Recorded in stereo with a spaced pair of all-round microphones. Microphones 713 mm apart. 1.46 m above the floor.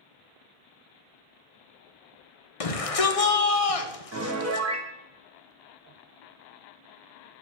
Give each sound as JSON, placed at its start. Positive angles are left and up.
{"t": 2.6, "sound": "a shout", "side_deg": 50, "distance_m": 1.0}
{"t": 4.1, "sound": "a piano", "side_deg": -20, "distance_m": 0.9}